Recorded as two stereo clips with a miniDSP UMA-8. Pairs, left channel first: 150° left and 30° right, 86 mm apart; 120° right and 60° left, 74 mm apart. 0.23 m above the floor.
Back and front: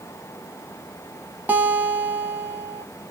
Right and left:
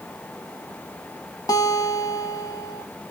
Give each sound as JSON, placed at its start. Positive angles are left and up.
{"t": 1.5, "sound": "a guitar", "azimuth_deg": -100, "distance_m": 0.7}